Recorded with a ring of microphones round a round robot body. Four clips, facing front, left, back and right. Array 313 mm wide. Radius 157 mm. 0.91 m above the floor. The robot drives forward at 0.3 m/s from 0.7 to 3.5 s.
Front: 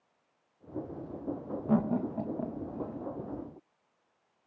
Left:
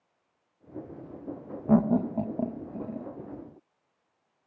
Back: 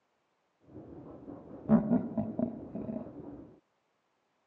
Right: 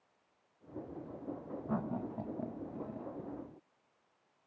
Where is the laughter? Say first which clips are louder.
Left 15 dB, back 2 dB; 100° left, 0.5 m; by 3.1 s 140° left, 0.7 m.